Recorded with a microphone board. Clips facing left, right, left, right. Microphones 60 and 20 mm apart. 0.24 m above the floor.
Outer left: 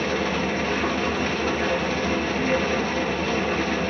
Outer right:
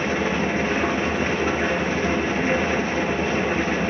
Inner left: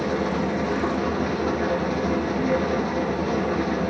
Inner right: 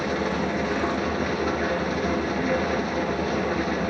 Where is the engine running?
20° right (ahead or behind), 2.5 m.